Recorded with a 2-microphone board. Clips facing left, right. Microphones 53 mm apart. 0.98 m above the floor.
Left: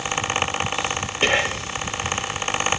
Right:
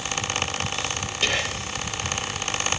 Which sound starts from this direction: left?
Whispering, at 1.2 s.